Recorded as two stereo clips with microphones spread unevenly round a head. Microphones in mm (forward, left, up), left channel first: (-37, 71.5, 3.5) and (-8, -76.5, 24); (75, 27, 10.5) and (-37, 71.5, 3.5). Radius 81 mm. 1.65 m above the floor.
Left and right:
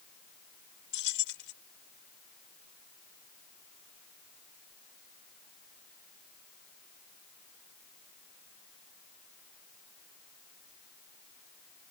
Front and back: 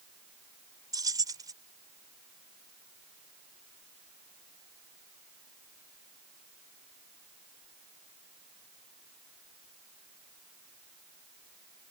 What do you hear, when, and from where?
0.9 s keys jangling: 100° left